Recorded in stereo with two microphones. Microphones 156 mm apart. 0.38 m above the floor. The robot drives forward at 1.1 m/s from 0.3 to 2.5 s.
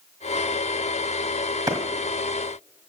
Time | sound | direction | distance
1.7 | a clap | 25° right (ahead or behind) | 1.7 m